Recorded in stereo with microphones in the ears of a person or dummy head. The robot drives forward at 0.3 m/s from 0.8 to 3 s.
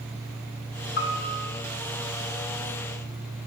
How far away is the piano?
About 0.7 m.